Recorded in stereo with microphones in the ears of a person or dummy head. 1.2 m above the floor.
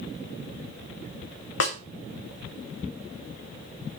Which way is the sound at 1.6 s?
75° left (ahead or behind).